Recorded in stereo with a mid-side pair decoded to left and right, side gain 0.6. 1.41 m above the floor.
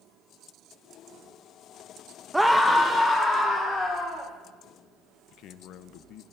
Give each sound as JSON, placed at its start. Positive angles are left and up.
{"t": 2.3, "sound": "a scream", "azimuth_deg": -5, "distance_m": 0.6}
{"t": 5.3, "sound": "a man speaking", "azimuth_deg": 65, "distance_m": 0.7}